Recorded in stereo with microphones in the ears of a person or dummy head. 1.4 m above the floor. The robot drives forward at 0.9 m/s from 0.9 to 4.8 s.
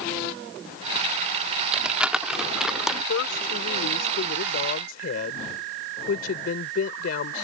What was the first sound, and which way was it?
Crumpling, 5° right (ahead or behind).